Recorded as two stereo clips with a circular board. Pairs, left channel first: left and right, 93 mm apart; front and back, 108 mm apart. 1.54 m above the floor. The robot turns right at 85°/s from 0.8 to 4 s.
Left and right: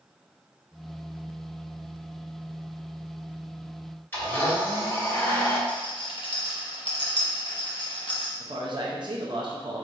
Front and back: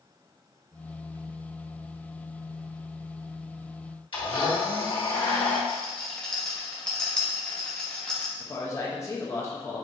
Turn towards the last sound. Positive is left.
turn(degrees=-60)